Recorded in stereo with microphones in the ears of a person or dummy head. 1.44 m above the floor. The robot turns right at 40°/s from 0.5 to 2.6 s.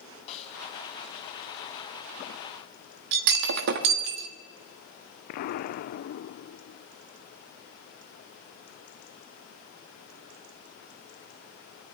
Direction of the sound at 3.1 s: 55° right (ahead or behind).